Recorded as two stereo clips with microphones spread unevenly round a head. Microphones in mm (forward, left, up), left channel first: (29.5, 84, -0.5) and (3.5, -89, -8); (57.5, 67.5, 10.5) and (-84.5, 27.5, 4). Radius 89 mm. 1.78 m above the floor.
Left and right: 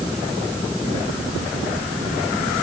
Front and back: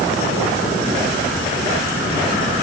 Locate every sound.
Only background noise.